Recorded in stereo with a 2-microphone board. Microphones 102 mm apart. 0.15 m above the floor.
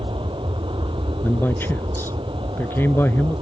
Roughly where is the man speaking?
Left.